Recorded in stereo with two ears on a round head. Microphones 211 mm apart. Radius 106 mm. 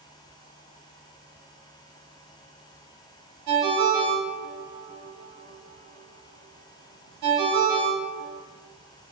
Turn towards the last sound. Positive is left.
turn(degrees=-85)